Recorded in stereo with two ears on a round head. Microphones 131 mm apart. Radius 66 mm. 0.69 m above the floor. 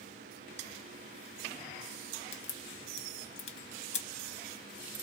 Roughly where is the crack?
Left.